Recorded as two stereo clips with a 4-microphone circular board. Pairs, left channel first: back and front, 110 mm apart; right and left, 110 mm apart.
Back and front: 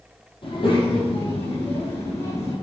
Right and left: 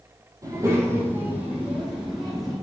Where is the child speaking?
145° left, 3.5 m; by 2.5 s straight behind, 5 m.